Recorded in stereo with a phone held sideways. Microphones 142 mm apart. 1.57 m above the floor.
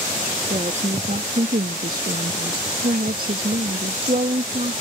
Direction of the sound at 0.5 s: 45° right (ahead or behind).